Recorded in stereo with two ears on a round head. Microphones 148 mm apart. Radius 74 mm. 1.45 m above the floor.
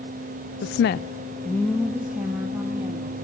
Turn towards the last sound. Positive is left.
turn(degrees=-15)  # may be behind; listen again after turning